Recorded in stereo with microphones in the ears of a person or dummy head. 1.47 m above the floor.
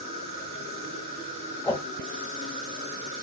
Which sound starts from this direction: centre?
A whoosh, at 1.6 s.